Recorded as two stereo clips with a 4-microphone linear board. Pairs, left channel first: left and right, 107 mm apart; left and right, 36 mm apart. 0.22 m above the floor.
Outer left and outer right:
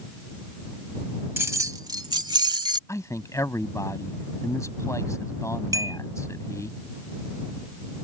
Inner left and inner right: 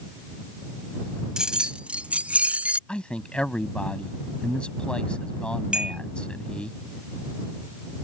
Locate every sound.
1.4 s keys jangling: 20° right (ahead or behind); by 2.8 s 45° right (ahead or behind)
2.9 s a man speaking: 30° left (ahead or behind)
5.7 s a clink: 30° right (ahead or behind)